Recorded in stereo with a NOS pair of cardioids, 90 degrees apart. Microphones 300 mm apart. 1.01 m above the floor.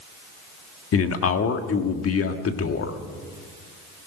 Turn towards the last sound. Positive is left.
turn(degrees=50)